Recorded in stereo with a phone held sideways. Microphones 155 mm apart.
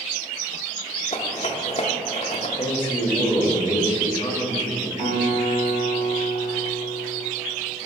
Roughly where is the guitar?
Left.